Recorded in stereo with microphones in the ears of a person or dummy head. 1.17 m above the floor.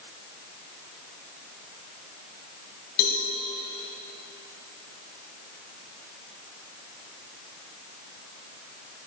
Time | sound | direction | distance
3.0 | a cowbell | 45° left (ahead or behind) | 1.4 m